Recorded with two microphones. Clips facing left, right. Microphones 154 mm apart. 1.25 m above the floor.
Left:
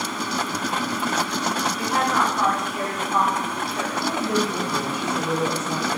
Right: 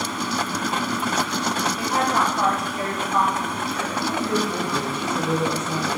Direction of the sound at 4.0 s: 10° left (ahead or behind).